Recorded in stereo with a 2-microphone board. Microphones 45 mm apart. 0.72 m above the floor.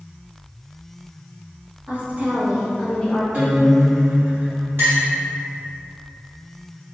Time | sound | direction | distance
1.9 | a woman speaking | 40° right (ahead or behind) | 1.1 m
3.3 | a guitar | 40° right (ahead or behind) | 1.3 m
4.8 | a clink | 60° right (ahead or behind) | 1.6 m